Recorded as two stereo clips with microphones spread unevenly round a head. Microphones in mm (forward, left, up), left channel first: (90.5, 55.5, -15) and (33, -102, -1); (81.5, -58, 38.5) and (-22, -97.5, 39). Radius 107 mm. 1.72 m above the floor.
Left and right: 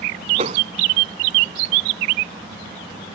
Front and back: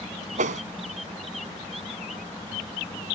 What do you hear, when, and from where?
0.4 s a whoosh: 170° right